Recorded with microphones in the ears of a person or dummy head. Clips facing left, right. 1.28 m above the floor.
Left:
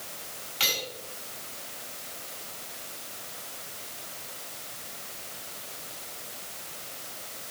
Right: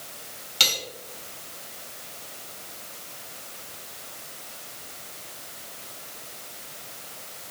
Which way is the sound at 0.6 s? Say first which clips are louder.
Right 1 dB; 55° right (ahead or behind).